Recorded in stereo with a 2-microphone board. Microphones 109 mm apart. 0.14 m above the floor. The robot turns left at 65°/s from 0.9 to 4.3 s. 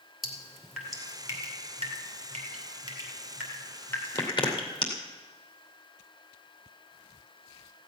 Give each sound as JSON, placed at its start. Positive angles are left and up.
{"t": 0.2, "sound": "dripping", "side_deg": 0, "distance_m": 2.5}